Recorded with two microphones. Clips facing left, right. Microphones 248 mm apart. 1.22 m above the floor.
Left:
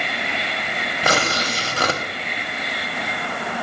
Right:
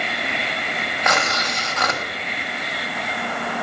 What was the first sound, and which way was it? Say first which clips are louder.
Tearing paper: left 3 dB; 35° left (ahead or behind).